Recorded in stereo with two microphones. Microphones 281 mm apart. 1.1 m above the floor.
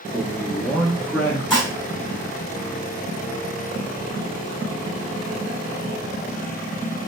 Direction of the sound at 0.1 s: 5° left (ahead or behind).